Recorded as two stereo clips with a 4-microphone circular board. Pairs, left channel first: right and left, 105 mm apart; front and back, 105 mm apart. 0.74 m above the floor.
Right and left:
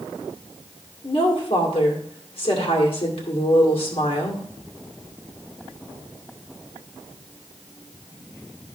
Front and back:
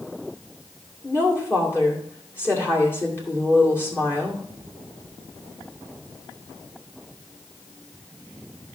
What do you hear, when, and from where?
1.0 s a woman speaking: 65° right, 2 m